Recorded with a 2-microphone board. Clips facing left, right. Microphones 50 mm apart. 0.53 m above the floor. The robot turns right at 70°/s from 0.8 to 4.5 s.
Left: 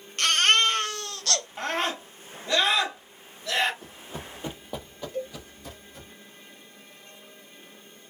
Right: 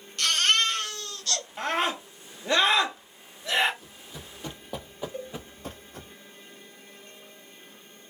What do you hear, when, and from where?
0.2 s a baby crying: 45° left, 0.7 m; by 1.5 s 90° left, 0.7 m
1.6 s a scream: centre (ahead or behind), 1.2 m; by 3.7 s 20° right (ahead or behind), 1.2 m
3.8 s running footsteps: 50° left (ahead or behind), 0.8 m; by 6.1 s 50° right (ahead or behind), 1.0 m
5.1 s a cowbell: 15° right (ahead or behind), 1.6 m